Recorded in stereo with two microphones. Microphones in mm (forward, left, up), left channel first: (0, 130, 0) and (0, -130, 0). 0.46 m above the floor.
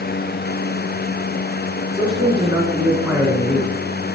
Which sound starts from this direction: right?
A man speaking, at 1.9 s.